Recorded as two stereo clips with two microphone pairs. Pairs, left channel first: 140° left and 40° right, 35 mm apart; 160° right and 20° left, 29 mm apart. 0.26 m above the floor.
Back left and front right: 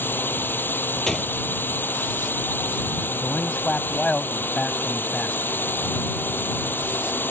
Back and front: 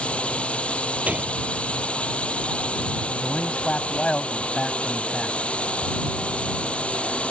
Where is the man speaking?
175° left.